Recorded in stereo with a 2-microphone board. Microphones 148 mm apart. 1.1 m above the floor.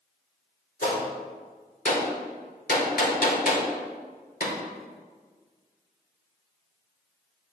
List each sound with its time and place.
0.8 s a gunshot: 80° left, 2 m